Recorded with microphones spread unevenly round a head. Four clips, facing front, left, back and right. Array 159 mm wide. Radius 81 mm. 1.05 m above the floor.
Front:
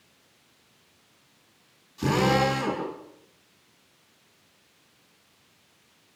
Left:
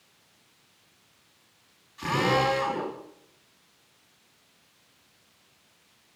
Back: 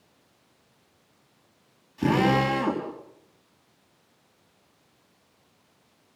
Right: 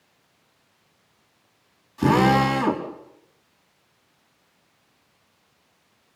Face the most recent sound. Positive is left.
turn(degrees=-115)